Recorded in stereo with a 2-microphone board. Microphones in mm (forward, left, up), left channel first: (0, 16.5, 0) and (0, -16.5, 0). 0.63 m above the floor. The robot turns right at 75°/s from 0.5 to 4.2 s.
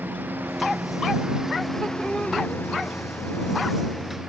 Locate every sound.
0.0 s a lawn mower: 85° right; by 4.3 s 15° right (ahead or behind)